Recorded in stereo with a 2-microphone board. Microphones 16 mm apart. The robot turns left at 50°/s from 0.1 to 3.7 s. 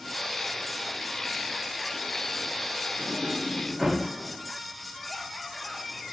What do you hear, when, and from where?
3.0 s a sliding door: 35° right (ahead or behind), 8 m; by 4.0 s centre (ahead or behind), 8 m